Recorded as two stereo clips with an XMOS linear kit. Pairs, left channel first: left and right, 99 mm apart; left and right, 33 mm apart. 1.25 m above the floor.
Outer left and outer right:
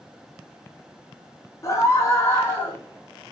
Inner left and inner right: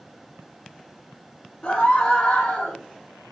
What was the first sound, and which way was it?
A scream, 30° left (ahead or behind).